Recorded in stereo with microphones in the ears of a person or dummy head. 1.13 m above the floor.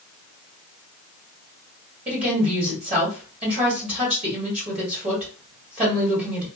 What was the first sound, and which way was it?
A woman speaking, 30° right (ahead or behind).